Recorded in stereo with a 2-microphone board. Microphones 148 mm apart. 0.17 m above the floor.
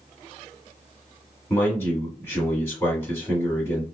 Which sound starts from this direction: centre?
A man speaking, at 1.5 s.